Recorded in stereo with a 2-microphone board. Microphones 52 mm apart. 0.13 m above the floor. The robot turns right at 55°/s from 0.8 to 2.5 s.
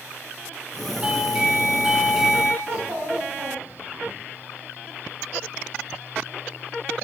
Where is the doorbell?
20° right (ahead or behind), 1.5 m; by 2.5 s centre (ahead or behind), 1.5 m.